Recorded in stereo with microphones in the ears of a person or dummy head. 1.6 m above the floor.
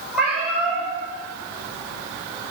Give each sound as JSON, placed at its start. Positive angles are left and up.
{"t": 0.1, "sound": "a cat meowing", "side_deg": 0, "distance_m": 1.8}